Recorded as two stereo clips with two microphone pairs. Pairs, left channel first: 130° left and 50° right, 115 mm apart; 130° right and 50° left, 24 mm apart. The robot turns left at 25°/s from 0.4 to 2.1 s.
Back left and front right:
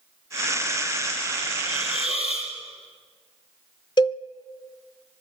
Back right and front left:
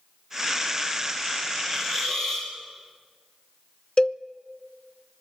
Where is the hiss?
170° left, 7 m; by 2.5 s 160° left, 7 m.